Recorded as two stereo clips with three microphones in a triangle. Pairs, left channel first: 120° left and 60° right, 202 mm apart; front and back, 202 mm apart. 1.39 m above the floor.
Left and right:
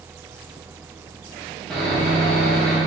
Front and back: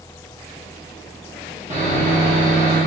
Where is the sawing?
155° right, 1.0 m.